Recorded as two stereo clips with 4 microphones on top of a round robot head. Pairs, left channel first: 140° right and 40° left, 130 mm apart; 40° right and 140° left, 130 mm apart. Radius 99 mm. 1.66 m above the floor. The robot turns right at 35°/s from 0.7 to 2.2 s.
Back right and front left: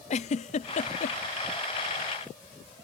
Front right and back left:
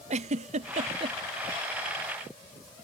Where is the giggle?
Straight behind; by 1.2 s 165° right.